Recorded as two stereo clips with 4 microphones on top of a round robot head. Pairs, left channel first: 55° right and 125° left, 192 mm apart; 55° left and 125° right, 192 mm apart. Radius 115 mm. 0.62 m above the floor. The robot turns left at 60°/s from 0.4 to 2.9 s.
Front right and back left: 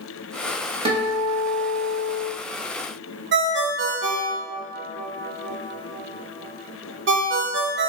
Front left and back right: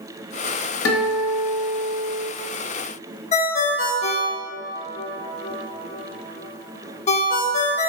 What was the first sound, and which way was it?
A guitar, 65° left.